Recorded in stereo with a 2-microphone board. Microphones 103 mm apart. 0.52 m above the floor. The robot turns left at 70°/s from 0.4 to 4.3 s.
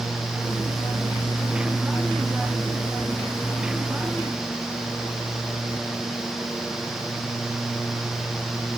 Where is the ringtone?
No ringtone in this recording.